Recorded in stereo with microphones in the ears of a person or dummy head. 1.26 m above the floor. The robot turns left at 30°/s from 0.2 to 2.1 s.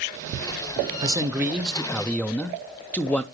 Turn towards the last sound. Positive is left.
turn(degrees=175)